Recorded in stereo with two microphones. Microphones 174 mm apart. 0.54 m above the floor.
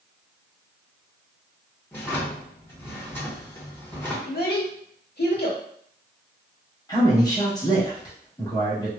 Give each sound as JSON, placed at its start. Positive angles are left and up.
{"t": 1.9, "sound": "a drawer", "side_deg": 15, "distance_m": 0.8}
{"t": 4.2, "sound": "a child speaking", "side_deg": 65, "distance_m": 1.0}
{"t": 6.9, "sound": "a man speaking", "side_deg": 20, "distance_m": 1.2}